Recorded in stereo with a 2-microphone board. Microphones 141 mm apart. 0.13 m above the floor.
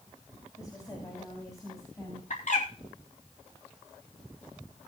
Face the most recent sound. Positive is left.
turn(degrees=65)  # may be behind; listen again after turning